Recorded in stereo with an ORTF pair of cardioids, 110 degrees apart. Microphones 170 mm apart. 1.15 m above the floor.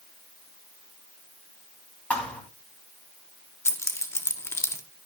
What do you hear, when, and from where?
2.1 s a thud: 5° left, 3 m
3.6 s keys jangling: 15° left, 1.3 m